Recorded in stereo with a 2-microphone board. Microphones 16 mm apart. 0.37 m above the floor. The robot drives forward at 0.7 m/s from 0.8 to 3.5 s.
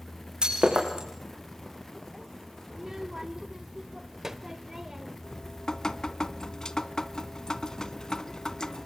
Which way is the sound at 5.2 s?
50° left (ahead or behind).